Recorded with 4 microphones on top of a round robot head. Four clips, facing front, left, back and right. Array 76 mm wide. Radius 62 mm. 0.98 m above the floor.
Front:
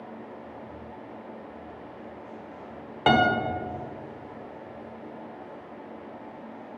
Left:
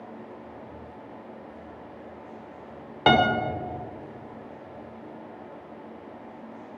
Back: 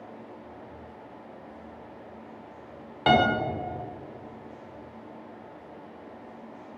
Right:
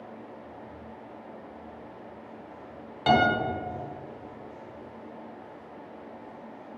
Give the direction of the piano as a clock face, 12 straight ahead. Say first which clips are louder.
Left 2 dB, front 1 dB; 10 o'clock.